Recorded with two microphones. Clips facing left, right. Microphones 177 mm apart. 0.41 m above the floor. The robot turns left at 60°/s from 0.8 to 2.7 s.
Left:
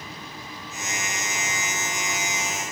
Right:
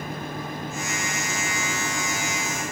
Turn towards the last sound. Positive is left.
No sound to turn to.